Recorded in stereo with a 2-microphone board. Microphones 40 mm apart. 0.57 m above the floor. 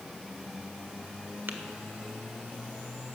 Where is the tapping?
65° right (ahead or behind), 1.1 m.